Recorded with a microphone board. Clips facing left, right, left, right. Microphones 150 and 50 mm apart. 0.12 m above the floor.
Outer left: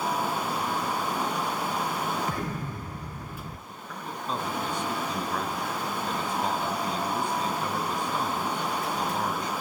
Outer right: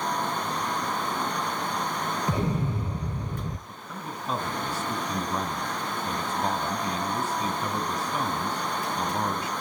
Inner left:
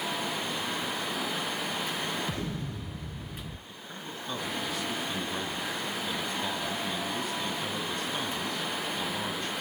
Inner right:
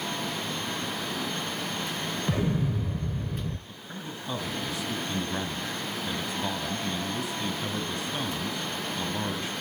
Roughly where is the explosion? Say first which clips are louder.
Outer right 5 dB, inner right 7 dB; right.